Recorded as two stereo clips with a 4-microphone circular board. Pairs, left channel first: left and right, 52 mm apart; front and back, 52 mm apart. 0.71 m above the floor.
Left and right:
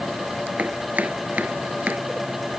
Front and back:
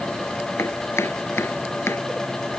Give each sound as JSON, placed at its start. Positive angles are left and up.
{"t": 0.6, "sound": "chopping", "azimuth_deg": -35}